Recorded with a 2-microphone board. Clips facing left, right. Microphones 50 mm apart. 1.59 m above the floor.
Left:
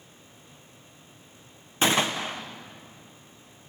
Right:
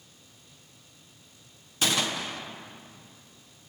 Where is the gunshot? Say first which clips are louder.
Left 4 dB; 30° left (ahead or behind), 1.2 m.